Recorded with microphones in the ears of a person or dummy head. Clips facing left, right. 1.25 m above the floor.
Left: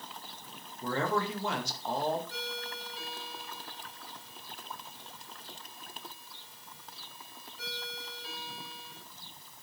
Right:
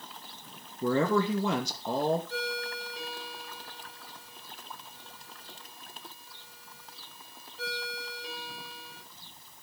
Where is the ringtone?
65° right (ahead or behind), 4 m.